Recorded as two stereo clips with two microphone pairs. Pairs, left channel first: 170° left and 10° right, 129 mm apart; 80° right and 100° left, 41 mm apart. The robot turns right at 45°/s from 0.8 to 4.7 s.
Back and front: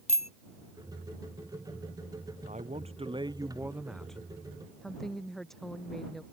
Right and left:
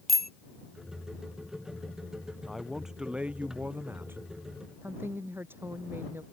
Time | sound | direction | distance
0.1 | a bicycle bell | 165° right | ?
2.4 | a man speaking | 5° left | ?
4.8 | a woman speaking | 80° left | ?